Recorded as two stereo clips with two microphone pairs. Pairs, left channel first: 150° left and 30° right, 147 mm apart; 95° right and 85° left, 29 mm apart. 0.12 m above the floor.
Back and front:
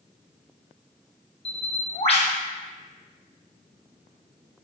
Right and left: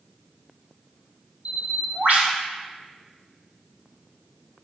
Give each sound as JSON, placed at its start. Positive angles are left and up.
{"t": 1.4, "sound": "a bird", "azimuth_deg": 105, "distance_m": 0.7}